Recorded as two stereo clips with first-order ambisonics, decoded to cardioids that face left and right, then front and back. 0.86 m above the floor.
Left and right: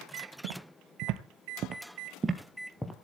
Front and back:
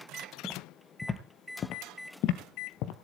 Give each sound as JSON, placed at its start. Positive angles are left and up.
{"t": 0.4, "sound": "footsteps", "azimuth_deg": -90, "distance_m": 1.7}